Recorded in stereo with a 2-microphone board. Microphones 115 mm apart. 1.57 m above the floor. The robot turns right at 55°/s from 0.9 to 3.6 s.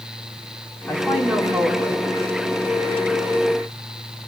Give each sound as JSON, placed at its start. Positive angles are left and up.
{"t": 0.9, "sound": "a man speaking", "azimuth_deg": 165, "distance_m": 5.5}